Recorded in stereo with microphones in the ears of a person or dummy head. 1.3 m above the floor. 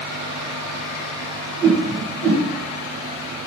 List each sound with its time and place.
1.6 s a whoosh: 5° left (ahead or behind), 0.8 m